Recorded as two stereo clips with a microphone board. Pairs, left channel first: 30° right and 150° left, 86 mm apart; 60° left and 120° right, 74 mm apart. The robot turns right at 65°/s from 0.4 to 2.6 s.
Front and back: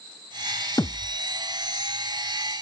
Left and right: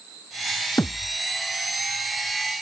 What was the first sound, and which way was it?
A thud, 10° left.